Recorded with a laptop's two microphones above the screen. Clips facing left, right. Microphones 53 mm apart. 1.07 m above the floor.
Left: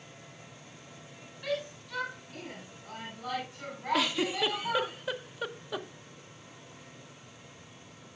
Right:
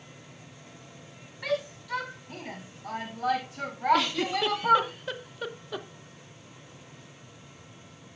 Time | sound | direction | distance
1.4 | a shout | 80° right | 8.5 m
3.9 | a giggle | 5° left (ahead or behind) | 0.7 m